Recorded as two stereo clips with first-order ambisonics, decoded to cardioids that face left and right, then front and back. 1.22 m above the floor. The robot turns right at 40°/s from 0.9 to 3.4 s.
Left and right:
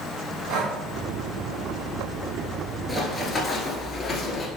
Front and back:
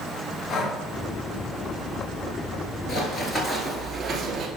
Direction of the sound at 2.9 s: 10° left.